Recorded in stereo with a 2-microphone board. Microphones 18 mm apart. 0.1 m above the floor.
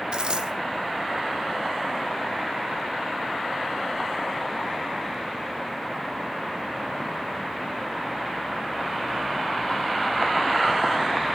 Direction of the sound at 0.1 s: 50° right (ahead or behind).